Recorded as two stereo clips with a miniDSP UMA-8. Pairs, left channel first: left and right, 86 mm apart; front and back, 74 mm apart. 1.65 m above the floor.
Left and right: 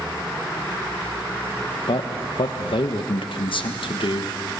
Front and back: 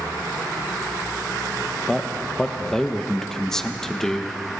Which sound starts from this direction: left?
A man speaking, at 1.9 s.